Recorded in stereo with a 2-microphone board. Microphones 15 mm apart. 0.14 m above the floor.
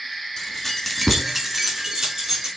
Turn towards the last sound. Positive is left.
turn(degrees=-55)  # may be behind; listen again after turning